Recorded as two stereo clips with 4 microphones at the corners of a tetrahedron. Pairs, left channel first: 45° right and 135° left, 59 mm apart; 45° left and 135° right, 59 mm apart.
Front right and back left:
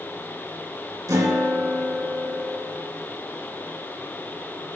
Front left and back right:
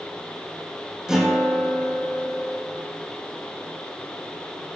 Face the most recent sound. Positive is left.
turn(degrees=145)